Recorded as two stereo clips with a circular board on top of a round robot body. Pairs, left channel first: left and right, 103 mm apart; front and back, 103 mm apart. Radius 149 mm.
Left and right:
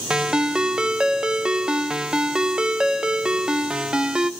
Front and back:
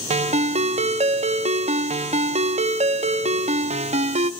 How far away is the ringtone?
About 0.6 m.